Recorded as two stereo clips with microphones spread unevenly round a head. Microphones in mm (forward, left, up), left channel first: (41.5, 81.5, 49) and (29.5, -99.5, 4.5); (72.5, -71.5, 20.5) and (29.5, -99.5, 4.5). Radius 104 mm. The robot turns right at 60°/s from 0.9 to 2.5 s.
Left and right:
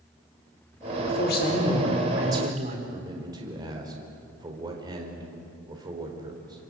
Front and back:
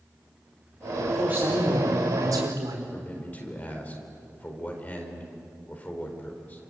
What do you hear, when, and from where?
1.1 s a man speaking: 115° left, 4.5 m; by 2.8 s 155° right, 4.5 m
2.9 s a man speaking: 25° right, 4.5 m